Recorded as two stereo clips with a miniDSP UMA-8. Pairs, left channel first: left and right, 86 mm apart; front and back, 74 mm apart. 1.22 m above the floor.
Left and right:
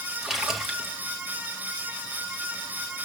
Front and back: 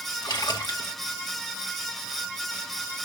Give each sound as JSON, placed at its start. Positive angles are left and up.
{"t": 0.2, "sound": "a splash", "azimuth_deg": -5, "distance_m": 1.8}